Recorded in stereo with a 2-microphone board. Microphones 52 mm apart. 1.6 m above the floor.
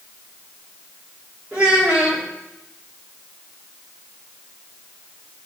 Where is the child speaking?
20° right (ahead or behind), 2.5 m.